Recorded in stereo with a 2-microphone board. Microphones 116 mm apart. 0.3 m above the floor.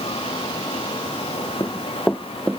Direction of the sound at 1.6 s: 30° left (ahead or behind).